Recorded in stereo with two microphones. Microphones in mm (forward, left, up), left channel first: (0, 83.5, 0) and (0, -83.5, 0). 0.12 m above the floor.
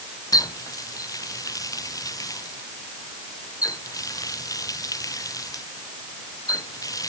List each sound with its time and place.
0.3 s a running tap: 20° left (ahead or behind)